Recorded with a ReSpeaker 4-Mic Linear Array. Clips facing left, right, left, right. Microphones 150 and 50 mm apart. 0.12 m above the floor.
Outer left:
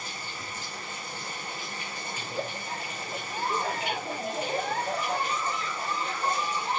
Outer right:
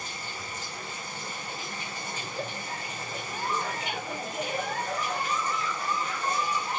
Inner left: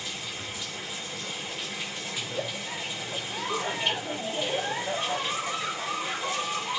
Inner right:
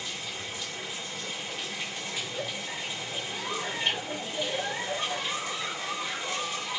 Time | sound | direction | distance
0.0 | running water | 10° left (ahead or behind) | 8 m
2.2 | a giggle | 30° left (ahead or behind) | 1.5 m